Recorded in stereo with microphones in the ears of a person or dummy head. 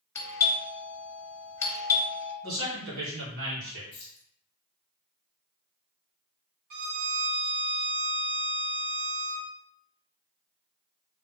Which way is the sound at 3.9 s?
35° left (ahead or behind).